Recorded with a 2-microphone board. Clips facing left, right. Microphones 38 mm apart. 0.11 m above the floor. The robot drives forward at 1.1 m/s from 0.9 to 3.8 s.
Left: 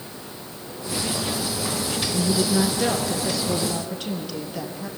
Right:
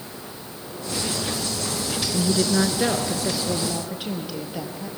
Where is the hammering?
I don't hear hammering.